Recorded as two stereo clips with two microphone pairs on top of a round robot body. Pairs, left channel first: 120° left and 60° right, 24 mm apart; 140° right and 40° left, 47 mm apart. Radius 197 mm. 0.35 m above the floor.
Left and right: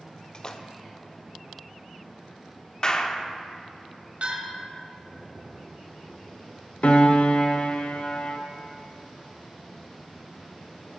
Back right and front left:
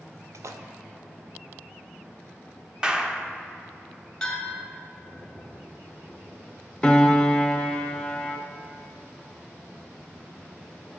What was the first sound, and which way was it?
A splash, 60° left.